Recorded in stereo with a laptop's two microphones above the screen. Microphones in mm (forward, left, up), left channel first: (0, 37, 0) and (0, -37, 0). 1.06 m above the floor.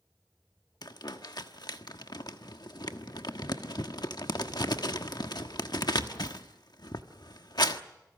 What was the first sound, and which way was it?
Crumpling, 65° left (ahead or behind).